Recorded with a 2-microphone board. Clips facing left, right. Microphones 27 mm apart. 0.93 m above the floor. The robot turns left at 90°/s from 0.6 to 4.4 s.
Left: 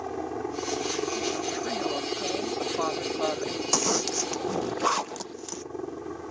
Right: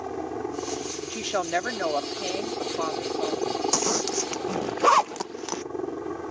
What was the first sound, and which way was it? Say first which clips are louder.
A helicopter: right 1 dB; straight behind.